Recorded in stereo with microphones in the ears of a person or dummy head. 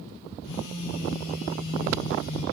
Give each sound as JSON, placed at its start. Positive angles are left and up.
{"t": 0.4, "sound": "a phone buzzing", "side_deg": 70, "distance_m": 6.0}